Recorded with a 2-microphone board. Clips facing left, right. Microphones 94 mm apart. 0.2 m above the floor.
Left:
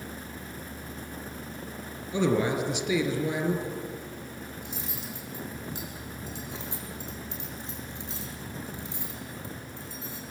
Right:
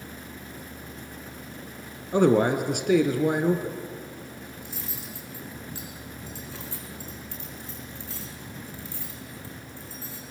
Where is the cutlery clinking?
20° left (ahead or behind), 6.5 m.